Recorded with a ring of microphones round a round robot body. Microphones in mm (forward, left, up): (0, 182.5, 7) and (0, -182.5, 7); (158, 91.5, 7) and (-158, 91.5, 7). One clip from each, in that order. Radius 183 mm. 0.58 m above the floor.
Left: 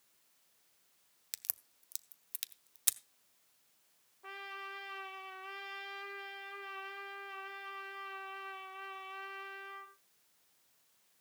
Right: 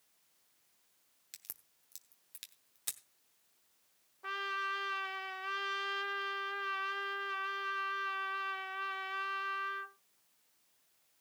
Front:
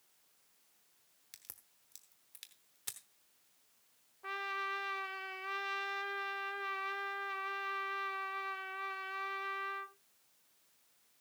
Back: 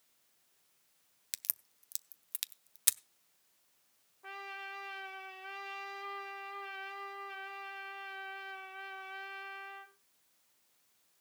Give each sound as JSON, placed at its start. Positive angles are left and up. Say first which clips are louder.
{"t": 1.3, "sound": "a crack", "louder": "left 7 dB, back 13 dB", "azimuth_deg": 160, "distance_m": 0.8}
{"t": 4.2, "sound": "a trumpet", "louder": "right 8 dB, front 6 dB", "azimuth_deg": -70, "distance_m": 1.4}